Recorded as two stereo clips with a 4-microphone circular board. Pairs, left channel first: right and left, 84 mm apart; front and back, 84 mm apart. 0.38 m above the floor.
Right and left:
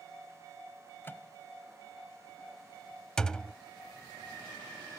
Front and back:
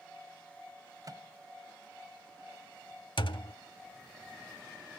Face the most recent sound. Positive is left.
turn(degrees=-10)